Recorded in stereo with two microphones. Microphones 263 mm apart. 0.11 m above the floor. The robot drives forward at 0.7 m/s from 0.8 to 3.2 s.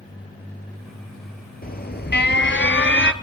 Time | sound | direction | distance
1.6 | an alarm | 35° left (ahead or behind) | 1.6 m